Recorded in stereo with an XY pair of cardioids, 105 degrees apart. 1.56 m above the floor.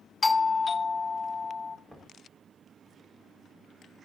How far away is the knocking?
About 5 m.